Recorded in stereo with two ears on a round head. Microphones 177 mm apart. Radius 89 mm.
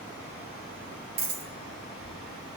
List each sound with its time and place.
1.2 s a dropped coin: 60° right (ahead or behind), 3 m